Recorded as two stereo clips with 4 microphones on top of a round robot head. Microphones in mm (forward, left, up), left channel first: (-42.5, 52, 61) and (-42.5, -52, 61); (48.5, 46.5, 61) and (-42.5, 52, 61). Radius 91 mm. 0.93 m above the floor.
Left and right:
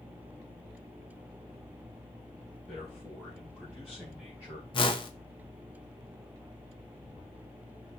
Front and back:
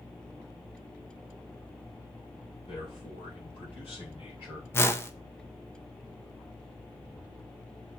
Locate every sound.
2.7 s a man speaking: straight ahead, 6 m; by 4.6 s 10° right, 5.5 m
4.7 s a whoosh: 55° left, 1.0 m